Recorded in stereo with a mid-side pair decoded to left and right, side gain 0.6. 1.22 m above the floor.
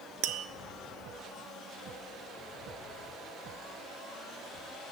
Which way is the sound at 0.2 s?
55° right.